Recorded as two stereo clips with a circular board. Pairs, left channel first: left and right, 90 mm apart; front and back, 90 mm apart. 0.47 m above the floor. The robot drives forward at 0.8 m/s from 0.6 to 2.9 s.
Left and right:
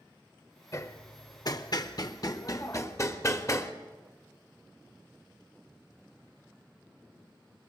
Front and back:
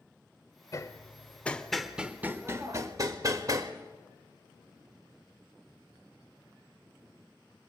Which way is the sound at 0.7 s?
40° left.